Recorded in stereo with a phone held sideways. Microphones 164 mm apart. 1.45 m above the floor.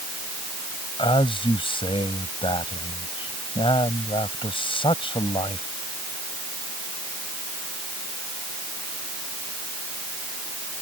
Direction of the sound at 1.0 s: 30° left (ahead or behind).